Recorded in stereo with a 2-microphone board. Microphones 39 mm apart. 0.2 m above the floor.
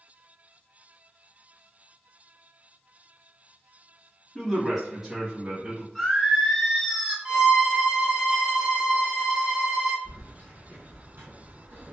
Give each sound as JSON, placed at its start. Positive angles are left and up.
{"t": 4.3, "sound": "a man speaking", "side_deg": 10, "distance_m": 1.0}
{"t": 6.0, "sound": "singing", "side_deg": -5, "distance_m": 0.9}
{"t": 7.2, "sound": "a violin", "side_deg": -25, "distance_m": 0.6}
{"t": 10.1, "sound": "keys jangling", "side_deg": -50, "distance_m": 1.5}